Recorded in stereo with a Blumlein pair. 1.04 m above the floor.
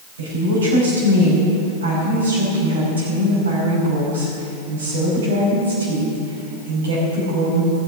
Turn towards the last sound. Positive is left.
turn(degrees=-65)